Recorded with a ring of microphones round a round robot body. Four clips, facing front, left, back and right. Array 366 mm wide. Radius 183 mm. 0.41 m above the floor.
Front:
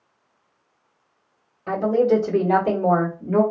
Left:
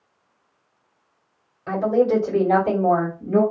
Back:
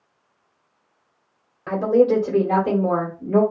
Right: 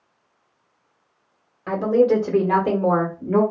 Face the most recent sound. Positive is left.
turn(degrees=-70)